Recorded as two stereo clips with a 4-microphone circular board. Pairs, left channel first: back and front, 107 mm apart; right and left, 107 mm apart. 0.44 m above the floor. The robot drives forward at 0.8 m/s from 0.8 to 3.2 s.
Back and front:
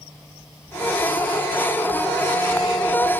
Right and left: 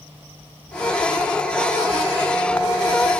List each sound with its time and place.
Only background noise.